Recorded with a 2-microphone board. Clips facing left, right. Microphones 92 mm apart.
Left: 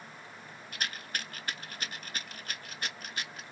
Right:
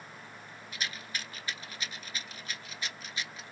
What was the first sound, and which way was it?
A rattle, 50° left (ahead or behind).